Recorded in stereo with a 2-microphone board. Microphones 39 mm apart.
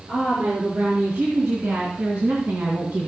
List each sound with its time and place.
0.1 s a woman speaking: 70° right (ahead or behind), 4.5 m; by 3.1 s 50° right (ahead or behind), 2 m